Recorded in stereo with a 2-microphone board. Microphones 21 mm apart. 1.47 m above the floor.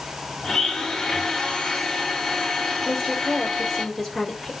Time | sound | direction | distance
0.4 | a blender | 25° left (ahead or behind) | 4 m
2.9 | a woman speaking | 20° left (ahead or behind) | 6 m